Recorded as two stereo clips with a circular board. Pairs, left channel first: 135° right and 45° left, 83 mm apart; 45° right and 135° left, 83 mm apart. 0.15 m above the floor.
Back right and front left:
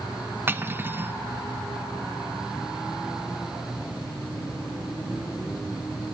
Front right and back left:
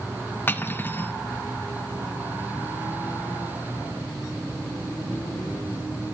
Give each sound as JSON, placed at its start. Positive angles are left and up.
{"t": 0.5, "sound": "cutlery clinking", "azimuth_deg": 5, "distance_m": 0.8}